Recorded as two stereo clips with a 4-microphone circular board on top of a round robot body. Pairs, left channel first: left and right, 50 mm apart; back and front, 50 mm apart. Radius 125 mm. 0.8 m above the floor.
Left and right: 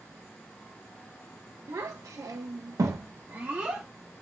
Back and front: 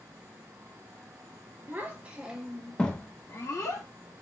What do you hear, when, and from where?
1.7 s a child speaking: 60° right, 1.0 m; by 3.9 s 160° right, 0.9 m